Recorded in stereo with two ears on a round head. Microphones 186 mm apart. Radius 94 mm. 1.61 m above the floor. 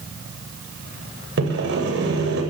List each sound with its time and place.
1.4 s sawing: 55° right (ahead or behind), 8 m